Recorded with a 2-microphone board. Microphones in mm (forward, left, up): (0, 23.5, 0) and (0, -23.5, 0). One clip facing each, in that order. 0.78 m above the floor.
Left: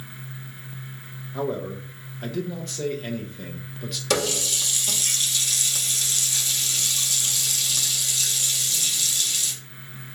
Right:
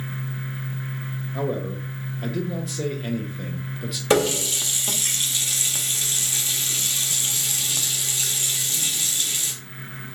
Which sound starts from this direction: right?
A running tap, at 4.1 s.